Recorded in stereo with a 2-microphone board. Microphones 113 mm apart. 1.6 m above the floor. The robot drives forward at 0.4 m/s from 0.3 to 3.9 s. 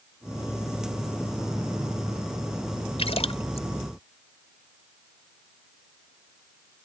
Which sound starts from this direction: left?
A splash, at 3.0 s.